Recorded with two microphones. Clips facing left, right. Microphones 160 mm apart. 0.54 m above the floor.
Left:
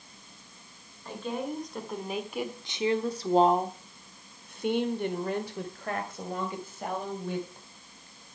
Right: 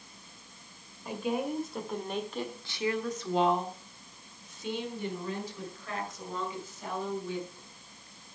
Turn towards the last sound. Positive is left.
turn(degrees=55)  # may be behind; listen again after turning